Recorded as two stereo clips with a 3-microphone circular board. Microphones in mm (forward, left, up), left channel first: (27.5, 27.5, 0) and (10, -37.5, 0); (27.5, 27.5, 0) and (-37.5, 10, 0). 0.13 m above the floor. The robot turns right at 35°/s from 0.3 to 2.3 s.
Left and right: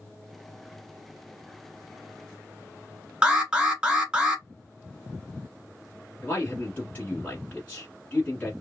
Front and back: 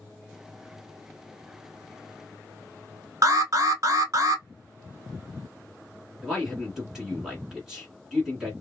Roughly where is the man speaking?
Behind left.